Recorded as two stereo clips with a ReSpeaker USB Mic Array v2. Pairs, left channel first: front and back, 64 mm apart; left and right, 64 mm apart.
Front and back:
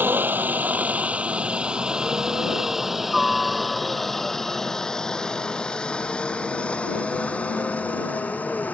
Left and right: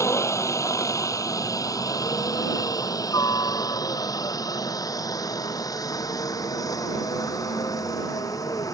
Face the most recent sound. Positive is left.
turn(degrees=65)